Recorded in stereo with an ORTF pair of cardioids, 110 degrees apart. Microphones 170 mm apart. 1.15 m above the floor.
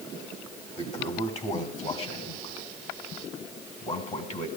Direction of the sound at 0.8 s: 40° left.